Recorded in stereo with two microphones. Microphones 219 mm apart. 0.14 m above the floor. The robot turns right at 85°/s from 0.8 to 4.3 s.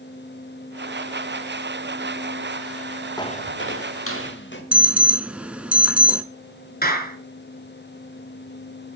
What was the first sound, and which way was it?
Footsteps, 15° left (ahead or behind).